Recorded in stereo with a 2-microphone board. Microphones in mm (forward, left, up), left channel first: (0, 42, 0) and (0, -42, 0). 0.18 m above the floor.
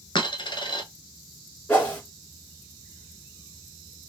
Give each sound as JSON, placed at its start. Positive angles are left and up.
{"t": 0.1, "sound": "a dropped coin", "side_deg": 65, "distance_m": 0.8}
{"t": 1.7, "sound": "a whoosh", "side_deg": 15, "distance_m": 1.5}